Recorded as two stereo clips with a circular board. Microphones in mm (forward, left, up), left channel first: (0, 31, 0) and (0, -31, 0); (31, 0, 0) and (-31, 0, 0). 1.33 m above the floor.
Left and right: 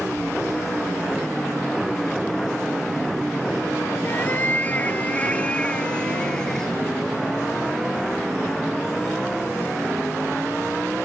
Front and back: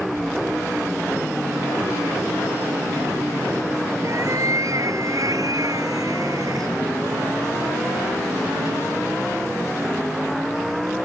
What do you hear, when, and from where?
4.0 s a cat meowing: 145° left; by 6.7 s 170° left